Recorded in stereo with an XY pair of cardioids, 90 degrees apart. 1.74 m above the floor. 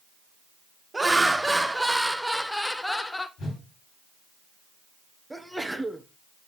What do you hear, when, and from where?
0.9 s laughter: 20° right, 1.7 m; by 3.3 s 25° left, 1.0 m
3.4 s a whoosh: 70° left, 3.5 m
5.3 s a sneeze: 10° right, 1.5 m